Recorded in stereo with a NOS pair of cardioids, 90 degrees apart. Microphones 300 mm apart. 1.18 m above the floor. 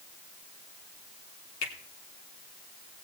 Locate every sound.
1.6 s a finger snap: 65° left, 3 m